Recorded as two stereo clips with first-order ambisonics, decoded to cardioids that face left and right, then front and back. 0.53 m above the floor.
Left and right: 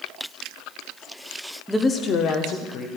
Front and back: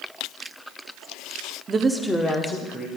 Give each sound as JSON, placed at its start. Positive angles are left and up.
{"t": 1.7, "sound": "a woman speaking", "azimuth_deg": -175, "distance_m": 0.6}